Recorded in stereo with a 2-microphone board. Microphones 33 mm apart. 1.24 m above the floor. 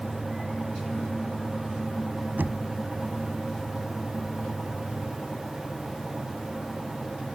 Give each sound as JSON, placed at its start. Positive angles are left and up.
{"t": 2.4, "sound": "knocking", "side_deg": -75}